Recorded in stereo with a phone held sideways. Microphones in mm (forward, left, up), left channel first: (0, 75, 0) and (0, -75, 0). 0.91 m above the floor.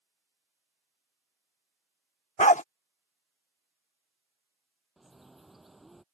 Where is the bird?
Centre (ahead or behind).